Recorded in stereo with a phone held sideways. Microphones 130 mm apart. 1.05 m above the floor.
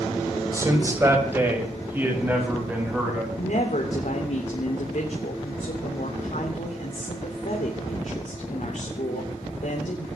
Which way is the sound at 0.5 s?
25° right (ahead or behind).